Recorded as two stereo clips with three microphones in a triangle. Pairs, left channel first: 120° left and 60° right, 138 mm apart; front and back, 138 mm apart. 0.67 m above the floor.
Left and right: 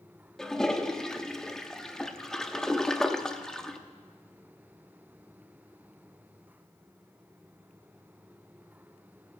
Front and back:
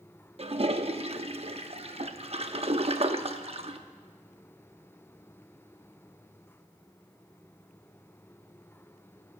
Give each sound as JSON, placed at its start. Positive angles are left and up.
{"t": 0.4, "sound": "a toilet flushing", "azimuth_deg": -155, "distance_m": 0.7}